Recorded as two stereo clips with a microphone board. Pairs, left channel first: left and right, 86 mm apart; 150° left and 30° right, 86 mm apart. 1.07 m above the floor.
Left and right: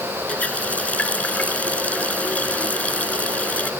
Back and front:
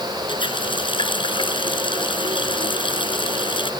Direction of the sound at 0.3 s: 165° left.